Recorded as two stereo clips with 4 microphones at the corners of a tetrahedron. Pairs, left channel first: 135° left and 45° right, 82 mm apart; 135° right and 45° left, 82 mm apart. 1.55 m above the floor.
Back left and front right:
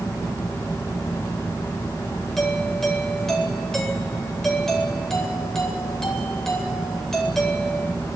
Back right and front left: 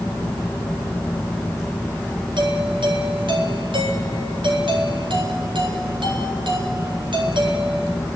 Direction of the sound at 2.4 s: 50° left.